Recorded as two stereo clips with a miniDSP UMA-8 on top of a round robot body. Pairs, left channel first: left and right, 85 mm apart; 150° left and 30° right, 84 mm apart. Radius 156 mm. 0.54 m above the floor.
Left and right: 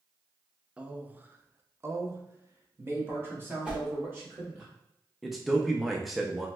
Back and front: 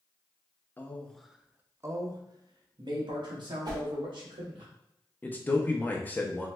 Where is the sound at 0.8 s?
160° right, 0.7 m; by 4.7 s 25° right, 1.8 m.